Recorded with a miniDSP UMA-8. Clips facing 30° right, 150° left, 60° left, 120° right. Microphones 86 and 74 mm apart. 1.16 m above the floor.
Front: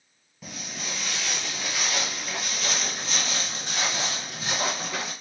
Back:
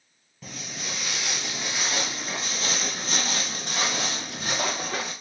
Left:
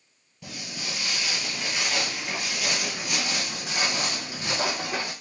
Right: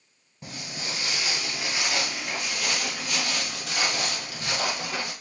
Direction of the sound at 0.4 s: 115° right.